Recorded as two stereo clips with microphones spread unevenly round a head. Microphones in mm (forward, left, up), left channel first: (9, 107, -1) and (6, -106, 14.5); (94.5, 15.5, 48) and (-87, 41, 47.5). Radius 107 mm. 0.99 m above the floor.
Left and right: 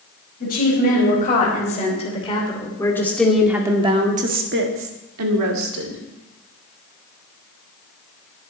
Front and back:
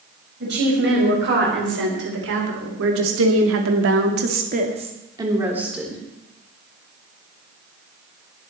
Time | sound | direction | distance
0.4 | a woman speaking | 140° left | 5 m